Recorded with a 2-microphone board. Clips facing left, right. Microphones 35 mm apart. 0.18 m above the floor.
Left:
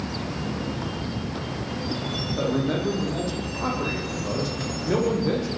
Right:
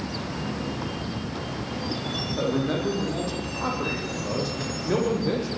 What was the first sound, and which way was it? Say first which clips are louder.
A man speaking: left 1 dB; 5° right (ahead or behind).